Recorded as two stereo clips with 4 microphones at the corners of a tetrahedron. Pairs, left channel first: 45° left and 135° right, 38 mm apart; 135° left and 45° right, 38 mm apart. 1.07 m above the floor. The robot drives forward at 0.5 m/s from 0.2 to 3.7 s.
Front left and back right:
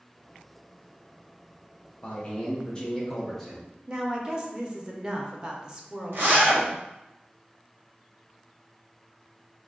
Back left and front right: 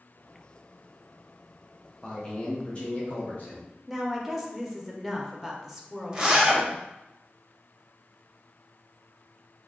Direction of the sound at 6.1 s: 120° right.